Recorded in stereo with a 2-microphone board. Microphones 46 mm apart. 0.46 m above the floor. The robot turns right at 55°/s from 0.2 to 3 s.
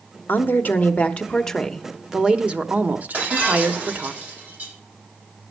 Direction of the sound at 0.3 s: 100° left.